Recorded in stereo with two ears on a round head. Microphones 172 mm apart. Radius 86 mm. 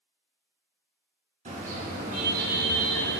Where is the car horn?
40° right (ahead or behind), 5 m; by 3.2 s 55° right (ahead or behind), 3 m.